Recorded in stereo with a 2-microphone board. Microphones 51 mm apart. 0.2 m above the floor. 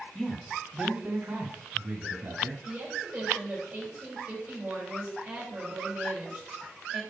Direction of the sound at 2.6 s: 20° right (ahead or behind).